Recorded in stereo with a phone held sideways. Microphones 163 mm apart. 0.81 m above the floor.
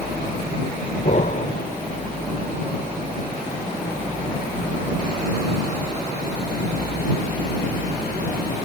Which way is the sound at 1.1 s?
50° left (ahead or behind).